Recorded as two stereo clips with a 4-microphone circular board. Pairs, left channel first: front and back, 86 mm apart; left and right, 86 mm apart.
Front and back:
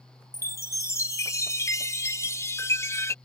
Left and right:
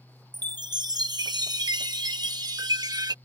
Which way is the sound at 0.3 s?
55° right.